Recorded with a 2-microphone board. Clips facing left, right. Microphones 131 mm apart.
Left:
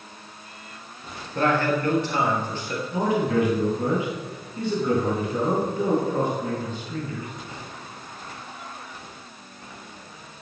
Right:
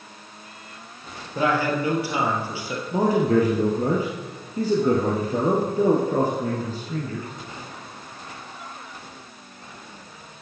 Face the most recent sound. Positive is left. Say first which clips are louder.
# right 4 dB
turn(degrees=-40)  # may be behind; listen again after turning